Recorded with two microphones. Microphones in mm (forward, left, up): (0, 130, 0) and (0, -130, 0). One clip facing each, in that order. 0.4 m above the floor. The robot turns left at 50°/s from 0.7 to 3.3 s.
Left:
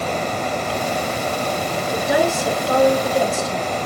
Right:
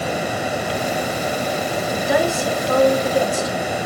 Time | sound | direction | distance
1.9 | a woman speaking | 55° left | 4.5 m